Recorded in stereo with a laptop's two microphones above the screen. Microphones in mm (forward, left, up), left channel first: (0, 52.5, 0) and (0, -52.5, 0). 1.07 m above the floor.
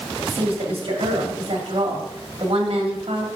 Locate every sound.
0.2 s a woman speaking: 60° right (ahead or behind), 1.8 m